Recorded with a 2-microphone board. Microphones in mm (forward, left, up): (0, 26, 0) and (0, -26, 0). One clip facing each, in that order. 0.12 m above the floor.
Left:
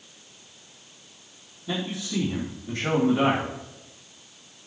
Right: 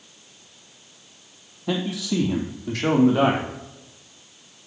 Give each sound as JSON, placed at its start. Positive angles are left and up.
{"t": 1.7, "sound": "a man speaking", "side_deg": -70, "distance_m": 3.5}